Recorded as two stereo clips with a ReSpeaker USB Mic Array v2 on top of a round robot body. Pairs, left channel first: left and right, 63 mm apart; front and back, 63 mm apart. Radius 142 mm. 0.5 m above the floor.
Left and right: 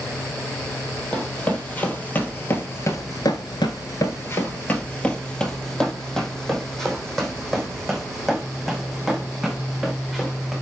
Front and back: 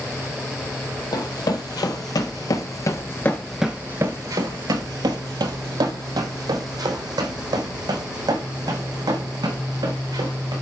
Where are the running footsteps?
15° left, 1.6 m; by 10.5 s straight behind, 4 m.